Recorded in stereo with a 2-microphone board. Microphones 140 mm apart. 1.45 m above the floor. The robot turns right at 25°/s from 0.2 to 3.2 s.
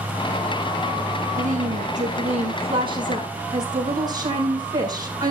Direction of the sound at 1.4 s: 75° right.